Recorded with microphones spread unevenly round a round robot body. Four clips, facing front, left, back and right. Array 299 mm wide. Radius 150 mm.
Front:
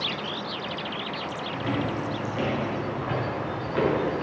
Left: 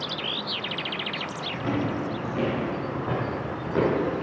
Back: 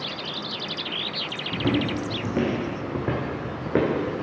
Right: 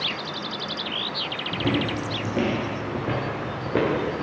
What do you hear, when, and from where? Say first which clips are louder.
1.5 s footsteps: right 2 dB, back 5 dB; 145° right, 1.9 m; by 4.2 s 165° right, 3.5 m